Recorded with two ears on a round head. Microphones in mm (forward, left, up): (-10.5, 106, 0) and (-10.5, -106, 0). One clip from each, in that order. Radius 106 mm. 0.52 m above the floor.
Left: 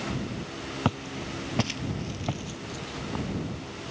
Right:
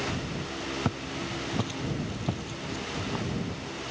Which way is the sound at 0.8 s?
50° left (ahead or behind).